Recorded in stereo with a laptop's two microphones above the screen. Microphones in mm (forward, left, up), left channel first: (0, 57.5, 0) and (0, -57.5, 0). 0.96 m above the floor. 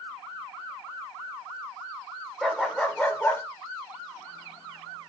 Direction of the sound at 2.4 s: Centre (ahead or behind).